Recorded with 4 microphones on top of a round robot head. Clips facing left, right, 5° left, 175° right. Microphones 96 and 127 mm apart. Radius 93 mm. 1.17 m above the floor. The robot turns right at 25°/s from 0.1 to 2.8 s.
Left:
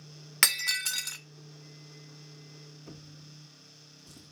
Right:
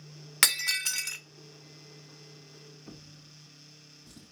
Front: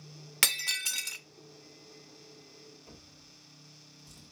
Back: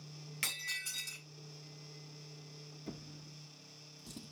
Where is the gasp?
No gasp in this recording.